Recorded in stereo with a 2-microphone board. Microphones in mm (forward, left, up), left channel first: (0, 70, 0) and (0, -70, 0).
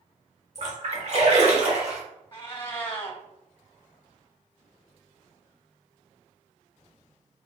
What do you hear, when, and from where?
0.6 s a splash: 50° right (ahead or behind), 1.4 m
2.3 s a cat meowing: 35° left (ahead or behind), 0.7 m